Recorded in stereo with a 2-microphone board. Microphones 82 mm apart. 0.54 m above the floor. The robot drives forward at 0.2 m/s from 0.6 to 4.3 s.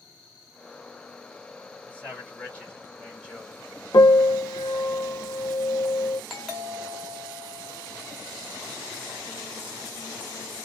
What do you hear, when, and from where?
1.9 s a man speaking: 15° left (ahead or behind), 2.0 m
3.9 s a piano: 60° left (ahead or behind), 0.7 m
6.3 s a doorbell: centre (ahead or behind), 1.2 m